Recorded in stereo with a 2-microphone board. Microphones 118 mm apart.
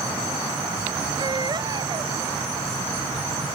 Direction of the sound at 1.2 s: 40° right (ahead or behind).